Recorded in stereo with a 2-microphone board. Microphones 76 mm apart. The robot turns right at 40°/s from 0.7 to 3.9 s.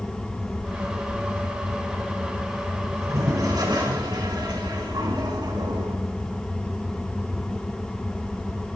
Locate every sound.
2.9 s a toilet flushing: 135° right, 4.5 m; by 6.0 s 95° right, 4.5 m